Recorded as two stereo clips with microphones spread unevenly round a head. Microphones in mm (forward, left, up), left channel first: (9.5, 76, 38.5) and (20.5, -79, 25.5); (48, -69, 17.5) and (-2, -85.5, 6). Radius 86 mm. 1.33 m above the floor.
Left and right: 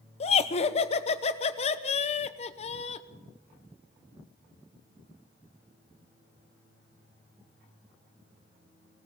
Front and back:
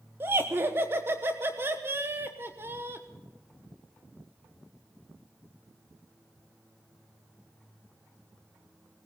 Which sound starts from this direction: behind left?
Laughter, at 0.2 s.